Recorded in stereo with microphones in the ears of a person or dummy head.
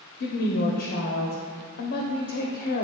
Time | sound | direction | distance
0.2 | a woman speaking | 60° left (ahead or behind) | 0.8 m